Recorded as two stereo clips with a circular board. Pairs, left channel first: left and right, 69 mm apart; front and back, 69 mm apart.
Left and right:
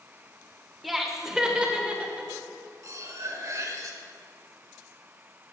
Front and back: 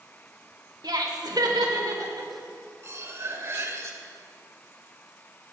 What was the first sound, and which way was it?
Laughter, straight behind.